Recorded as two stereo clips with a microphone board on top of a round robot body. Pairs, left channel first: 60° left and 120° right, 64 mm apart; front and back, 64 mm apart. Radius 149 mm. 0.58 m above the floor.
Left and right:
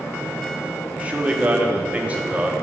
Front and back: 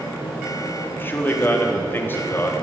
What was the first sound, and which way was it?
A man speaking, 55° right.